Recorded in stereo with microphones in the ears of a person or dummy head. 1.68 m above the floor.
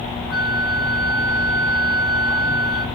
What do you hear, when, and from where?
0.3 s a flute: 10° left (ahead or behind), 2.5 m